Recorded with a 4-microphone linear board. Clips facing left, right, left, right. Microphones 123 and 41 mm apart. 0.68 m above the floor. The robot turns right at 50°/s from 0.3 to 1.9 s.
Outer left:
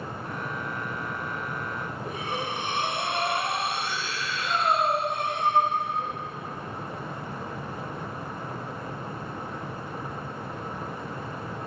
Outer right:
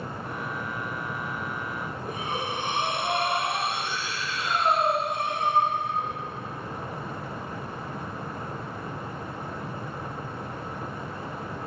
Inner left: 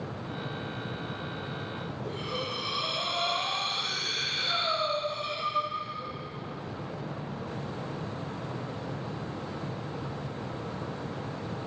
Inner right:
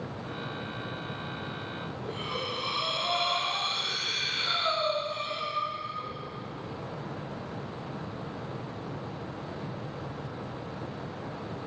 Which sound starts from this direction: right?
Breathing, at 2.0 s.